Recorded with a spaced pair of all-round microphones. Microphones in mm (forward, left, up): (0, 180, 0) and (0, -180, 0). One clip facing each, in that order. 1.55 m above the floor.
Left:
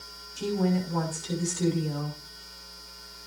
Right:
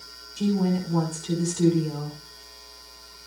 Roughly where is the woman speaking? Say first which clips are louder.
Right 3 dB; right.